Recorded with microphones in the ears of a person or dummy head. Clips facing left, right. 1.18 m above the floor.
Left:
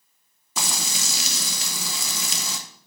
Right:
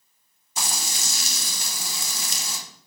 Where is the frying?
60° left (ahead or behind), 1.2 m.